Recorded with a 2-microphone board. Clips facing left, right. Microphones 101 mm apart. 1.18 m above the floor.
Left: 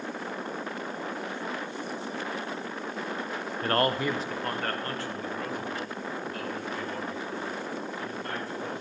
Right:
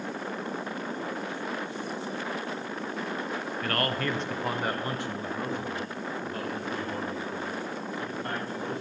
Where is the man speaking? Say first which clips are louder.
Left 5 dB; 35° left (ahead or behind), 0.6 m; by 8.8 s 40° right (ahead or behind), 3.5 m.